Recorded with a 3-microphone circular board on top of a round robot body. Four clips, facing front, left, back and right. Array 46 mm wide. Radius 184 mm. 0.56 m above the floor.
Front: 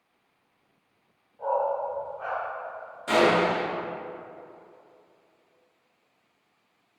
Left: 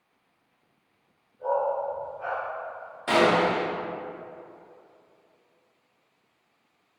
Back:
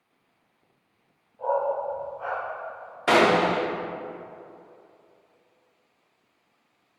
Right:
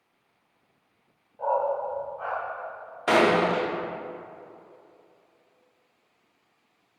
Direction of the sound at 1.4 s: 90° right.